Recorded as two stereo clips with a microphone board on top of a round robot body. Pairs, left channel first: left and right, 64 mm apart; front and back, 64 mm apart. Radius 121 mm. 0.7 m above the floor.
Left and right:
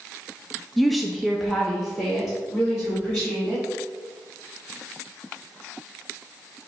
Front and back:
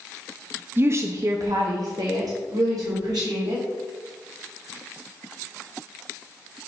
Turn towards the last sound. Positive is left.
turn(degrees=180)